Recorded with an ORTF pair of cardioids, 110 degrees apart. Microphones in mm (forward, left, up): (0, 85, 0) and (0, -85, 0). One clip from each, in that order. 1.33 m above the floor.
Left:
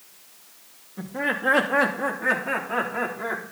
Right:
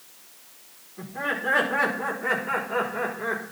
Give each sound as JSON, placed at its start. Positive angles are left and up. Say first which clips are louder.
{"t": 1.0, "sound": "laughter", "louder": "left 2 dB", "azimuth_deg": 65, "distance_m": 2.5}